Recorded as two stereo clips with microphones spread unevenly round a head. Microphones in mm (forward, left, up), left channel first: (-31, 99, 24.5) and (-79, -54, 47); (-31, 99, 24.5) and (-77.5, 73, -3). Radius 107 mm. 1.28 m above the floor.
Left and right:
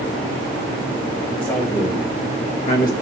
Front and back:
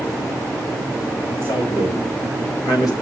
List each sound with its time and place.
1.4 s a man speaking: 5° right, 3 m; by 2.9 s 25° left, 2.0 m